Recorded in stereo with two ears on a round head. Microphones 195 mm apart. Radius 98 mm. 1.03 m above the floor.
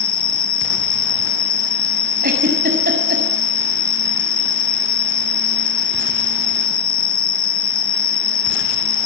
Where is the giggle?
45° right (ahead or behind), 6.5 m.